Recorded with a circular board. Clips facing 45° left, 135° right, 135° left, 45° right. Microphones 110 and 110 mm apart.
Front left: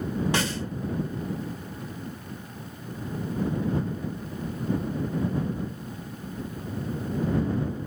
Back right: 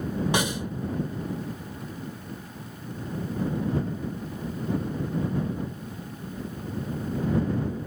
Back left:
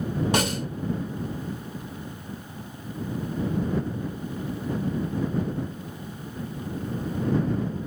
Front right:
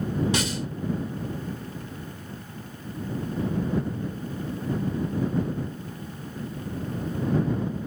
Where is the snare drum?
155° left.